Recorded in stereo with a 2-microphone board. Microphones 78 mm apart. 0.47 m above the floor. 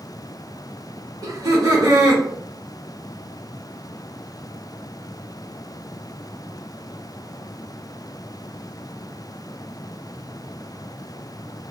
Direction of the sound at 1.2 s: 55° right (ahead or behind).